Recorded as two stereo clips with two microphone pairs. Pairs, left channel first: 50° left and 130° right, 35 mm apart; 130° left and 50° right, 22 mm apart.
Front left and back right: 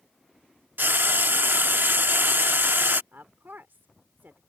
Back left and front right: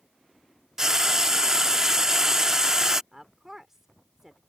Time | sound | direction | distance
0.8 | frying | 120° right | ?
3.1 | a woman speaking | 125° right | ?